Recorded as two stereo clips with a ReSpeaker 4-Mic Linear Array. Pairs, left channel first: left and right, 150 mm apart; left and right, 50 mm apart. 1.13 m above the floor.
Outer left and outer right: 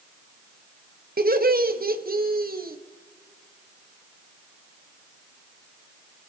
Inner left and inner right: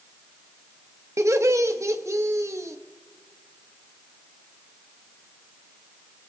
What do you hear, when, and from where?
1.2 s laughter: 75° right (ahead or behind), 1.1 m